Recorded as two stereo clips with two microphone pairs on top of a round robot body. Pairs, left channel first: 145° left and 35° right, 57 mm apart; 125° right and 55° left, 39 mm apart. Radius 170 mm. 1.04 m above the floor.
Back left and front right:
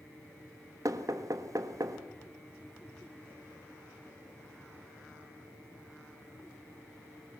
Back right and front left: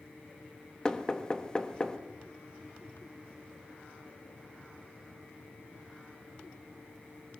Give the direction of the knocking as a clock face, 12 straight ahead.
2 o'clock.